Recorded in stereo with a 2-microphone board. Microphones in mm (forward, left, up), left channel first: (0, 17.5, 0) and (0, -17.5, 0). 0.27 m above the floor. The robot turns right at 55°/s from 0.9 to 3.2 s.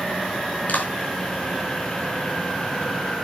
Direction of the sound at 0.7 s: 50° left (ahead or behind).